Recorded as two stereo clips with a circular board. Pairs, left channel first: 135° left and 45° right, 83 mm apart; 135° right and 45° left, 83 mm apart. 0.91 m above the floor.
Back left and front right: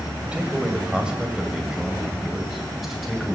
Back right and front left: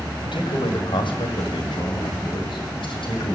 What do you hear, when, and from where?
0.2 s a man speaking: 120° right, 5.5 m; by 3.4 s 135° right, 6.5 m